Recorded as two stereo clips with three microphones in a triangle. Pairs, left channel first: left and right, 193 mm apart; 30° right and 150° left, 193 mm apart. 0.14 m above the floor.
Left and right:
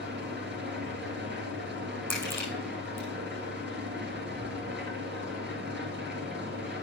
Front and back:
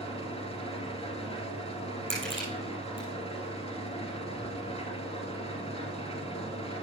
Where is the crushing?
170° left, 5.5 m.